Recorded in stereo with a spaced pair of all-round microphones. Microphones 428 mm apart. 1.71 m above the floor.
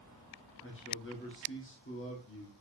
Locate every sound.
0.6 s a man speaking: 30° left (ahead or behind), 1.9 m